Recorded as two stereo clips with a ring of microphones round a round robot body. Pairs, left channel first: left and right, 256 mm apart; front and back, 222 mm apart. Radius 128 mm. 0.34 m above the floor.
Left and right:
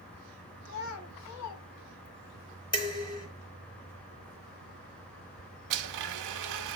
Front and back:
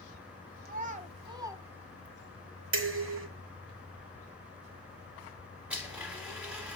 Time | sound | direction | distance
0.7 | a child speaking | 135° left | 1.3 m
2.7 | dishes clattering | 165° left | 1.5 m
5.7 | a blender | 95° right | 0.9 m